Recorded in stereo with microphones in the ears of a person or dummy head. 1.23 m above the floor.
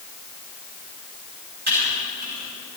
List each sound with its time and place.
1.7 s typing on a keyboard: 50° right (ahead or behind), 6.5 m